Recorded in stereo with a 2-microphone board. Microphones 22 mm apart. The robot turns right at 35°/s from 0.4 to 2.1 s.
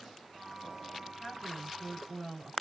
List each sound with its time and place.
1.2 s a woman speaking: 170° left, 2.5 m; by 2.5 s 155° right, 2.5 m